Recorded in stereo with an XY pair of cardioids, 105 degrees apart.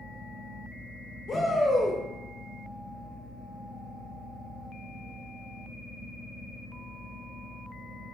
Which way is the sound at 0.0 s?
20° left.